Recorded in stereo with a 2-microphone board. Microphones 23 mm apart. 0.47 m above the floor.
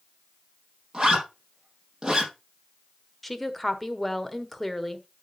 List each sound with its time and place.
0.9 s a zipper: 25° right (ahead or behind), 4.5 m
3.2 s a woman speaking: centre (ahead or behind), 1.2 m